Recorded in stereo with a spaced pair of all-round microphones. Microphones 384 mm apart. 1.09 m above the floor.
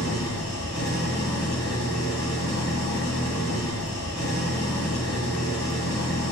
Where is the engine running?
80° left, 5 m.